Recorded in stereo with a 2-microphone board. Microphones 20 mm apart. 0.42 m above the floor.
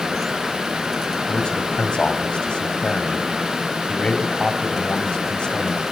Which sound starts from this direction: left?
A man speaking, at 1.3 s.